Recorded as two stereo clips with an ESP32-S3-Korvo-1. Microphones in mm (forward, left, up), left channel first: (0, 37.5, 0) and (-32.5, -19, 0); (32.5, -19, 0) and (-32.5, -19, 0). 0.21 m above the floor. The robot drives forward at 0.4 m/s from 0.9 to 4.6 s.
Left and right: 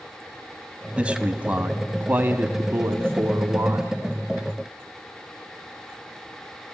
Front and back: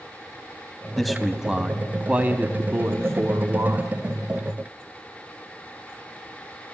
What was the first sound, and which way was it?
A man speaking, 85° right.